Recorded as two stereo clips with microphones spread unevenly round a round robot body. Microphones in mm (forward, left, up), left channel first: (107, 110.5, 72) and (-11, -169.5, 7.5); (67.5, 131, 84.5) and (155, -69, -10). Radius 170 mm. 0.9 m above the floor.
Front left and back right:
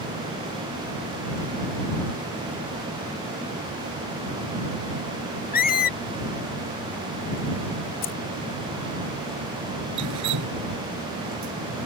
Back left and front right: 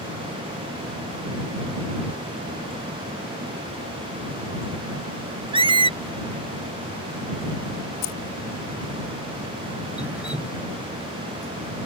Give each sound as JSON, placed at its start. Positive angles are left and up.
{"t": 5.5, "sound": "a squeak", "azimuth_deg": 10}
{"t": 8.0, "sound": "keys jangling", "azimuth_deg": 130}
{"t": 10.0, "sound": "dripping", "azimuth_deg": -155}